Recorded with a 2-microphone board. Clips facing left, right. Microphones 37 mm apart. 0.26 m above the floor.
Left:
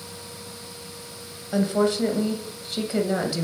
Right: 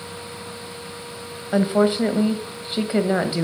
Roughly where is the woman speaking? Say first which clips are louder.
Right 4 dB; right.